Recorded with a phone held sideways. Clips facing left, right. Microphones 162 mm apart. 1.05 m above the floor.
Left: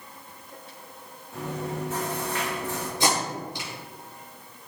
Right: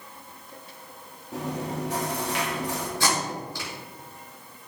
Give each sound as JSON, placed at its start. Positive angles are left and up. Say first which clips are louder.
{"t": 1.3, "sound": "chewing", "louder": "right 1 dB", "side_deg": -80, "distance_m": 1.9}
{"t": 3.0, "sound": "tape being pulled", "louder": "left 3 dB", "side_deg": 20, "distance_m": 3.0}